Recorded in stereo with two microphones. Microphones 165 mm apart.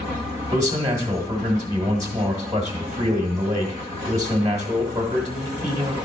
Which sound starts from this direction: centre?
A man speaking, at 0.5 s.